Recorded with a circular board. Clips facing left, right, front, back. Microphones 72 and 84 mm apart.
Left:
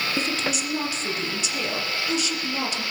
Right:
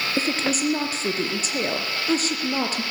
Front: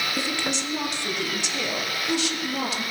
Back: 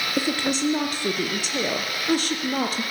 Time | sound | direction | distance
0.2 | a woman speaking | 135° right | 4 m